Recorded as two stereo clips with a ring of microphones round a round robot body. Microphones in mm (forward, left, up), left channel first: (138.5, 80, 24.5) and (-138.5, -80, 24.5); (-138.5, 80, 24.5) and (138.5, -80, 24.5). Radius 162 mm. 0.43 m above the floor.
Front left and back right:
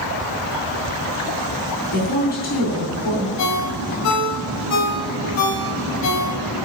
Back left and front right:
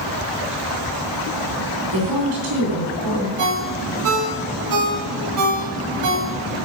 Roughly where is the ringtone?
Ahead.